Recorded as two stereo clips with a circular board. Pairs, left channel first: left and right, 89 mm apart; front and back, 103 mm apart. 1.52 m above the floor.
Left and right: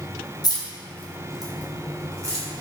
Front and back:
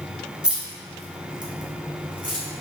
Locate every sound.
0.4 s keys jangling: 100° left, 0.6 m; by 2.5 s 140° right, 0.8 m